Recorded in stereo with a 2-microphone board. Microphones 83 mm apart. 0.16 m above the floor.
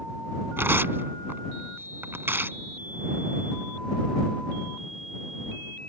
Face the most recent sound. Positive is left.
turn(degrees=-30)  # may be behind; listen again after turning